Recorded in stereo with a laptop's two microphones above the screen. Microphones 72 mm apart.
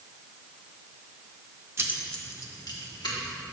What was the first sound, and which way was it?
Keys jangling, 35° right (ahead or behind).